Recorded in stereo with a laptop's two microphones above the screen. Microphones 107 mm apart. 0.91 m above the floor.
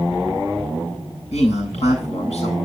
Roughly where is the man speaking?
Left.